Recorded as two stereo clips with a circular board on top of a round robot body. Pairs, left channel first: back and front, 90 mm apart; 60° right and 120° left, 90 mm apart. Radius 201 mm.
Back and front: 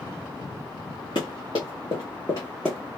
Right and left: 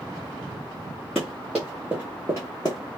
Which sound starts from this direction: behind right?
Running footsteps, at 1.1 s.